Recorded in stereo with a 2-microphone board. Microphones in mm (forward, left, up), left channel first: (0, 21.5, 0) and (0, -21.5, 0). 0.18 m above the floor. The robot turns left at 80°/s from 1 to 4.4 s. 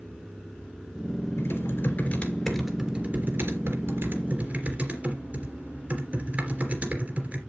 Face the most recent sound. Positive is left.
turn(degrees=-145)